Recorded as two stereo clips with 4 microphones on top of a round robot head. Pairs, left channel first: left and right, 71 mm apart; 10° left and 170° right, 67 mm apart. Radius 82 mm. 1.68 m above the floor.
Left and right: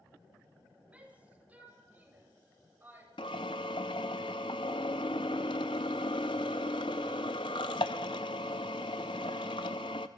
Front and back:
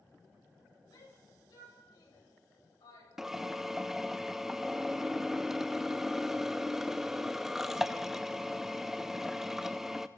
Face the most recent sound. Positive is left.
turn(degrees=110)